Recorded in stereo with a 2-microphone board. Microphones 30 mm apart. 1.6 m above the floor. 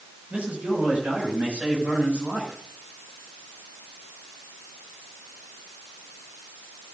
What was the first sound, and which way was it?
A man speaking, 50° right (ahead or behind).